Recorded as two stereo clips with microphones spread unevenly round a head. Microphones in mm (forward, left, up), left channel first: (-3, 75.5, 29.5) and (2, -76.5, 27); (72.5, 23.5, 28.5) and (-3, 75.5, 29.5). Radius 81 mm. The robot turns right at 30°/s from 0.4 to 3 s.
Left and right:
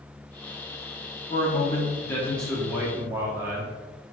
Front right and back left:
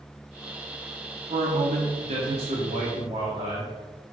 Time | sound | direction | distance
1.3 | a man speaking | 145° left | 1.6 m